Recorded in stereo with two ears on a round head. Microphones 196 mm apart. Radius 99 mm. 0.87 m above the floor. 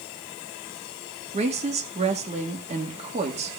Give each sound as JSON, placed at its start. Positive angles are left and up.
{"t": 1.3, "sound": "a woman speaking", "side_deg": -30, "distance_m": 1.7}